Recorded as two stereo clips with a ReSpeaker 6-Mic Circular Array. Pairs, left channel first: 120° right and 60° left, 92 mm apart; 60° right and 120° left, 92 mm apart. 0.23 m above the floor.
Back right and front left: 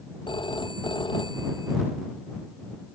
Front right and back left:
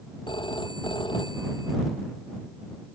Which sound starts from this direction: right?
A phone ringing, at 0.3 s.